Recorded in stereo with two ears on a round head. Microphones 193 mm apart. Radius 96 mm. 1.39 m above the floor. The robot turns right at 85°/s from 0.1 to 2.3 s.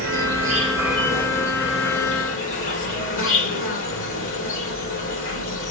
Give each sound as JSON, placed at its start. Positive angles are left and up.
{"t": 0.0, "sound": "an insect", "azimuth_deg": -70, "distance_m": 3.0}